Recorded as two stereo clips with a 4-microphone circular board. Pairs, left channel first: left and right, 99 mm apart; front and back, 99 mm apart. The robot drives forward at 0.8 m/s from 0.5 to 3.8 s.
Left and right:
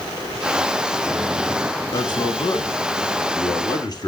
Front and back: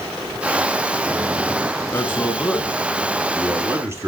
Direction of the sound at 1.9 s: 60° left.